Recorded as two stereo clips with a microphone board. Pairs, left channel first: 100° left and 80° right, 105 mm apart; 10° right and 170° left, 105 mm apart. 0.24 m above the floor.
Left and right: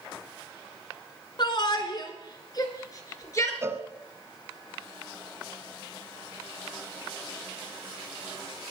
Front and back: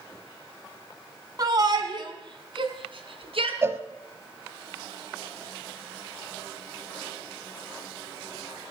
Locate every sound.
1.4 s a shout: 125° left, 2 m; by 3.5 s 155° left, 3 m
3.6 s a cowbell: 135° right, 1.0 m